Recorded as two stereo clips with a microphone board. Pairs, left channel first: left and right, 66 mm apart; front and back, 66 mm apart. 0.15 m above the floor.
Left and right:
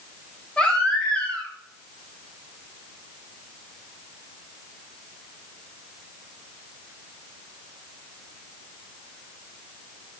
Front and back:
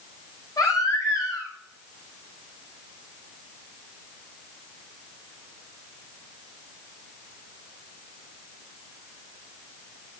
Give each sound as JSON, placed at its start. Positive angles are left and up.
{"t": 0.6, "sound": "a baby crying", "azimuth_deg": 15, "distance_m": 7.0}